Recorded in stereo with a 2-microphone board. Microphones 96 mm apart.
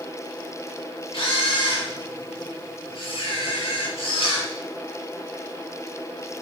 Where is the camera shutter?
65° left (ahead or behind), 5 m.